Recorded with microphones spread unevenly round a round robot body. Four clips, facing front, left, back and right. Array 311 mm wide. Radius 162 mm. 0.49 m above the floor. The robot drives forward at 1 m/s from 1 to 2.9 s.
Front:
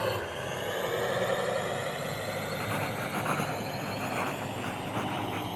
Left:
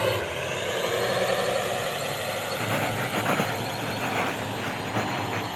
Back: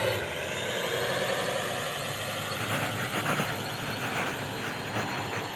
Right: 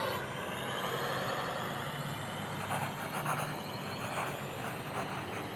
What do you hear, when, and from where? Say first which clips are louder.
0.0 s a drone: left 10 dB, back 1 dB; 90° left; by 5.6 s 55° left
2.6 s writing: left 9 dB, back 1 dB; 90° left; by 5.5 s 95° left